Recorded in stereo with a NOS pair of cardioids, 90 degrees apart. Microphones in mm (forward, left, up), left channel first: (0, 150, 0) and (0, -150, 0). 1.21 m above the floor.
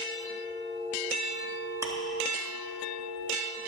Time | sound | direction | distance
1.8 | ticking | 10° right | 1.7 m